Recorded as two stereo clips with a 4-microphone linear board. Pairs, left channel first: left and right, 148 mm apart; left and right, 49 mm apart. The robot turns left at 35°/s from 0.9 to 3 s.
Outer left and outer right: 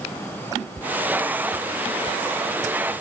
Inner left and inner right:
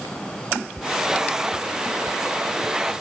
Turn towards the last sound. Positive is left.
No sound to turn to.